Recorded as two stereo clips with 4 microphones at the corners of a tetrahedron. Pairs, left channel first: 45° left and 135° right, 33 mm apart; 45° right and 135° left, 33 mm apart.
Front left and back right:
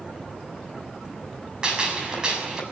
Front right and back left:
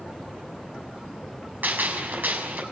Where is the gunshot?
160° left, 6 m.